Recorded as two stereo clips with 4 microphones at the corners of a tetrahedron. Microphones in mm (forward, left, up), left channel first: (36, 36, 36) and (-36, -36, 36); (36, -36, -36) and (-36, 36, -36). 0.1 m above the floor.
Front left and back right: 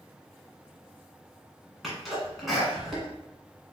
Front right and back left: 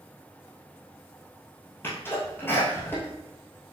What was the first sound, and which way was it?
A sneeze, 45° right.